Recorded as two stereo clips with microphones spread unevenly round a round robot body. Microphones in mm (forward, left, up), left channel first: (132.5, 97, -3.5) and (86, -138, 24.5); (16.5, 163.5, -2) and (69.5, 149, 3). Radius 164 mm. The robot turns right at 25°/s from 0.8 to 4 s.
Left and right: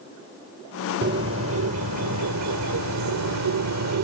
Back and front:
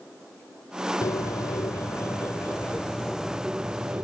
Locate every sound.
1.0 s a bird: 165° right; by 4.0 s 90° right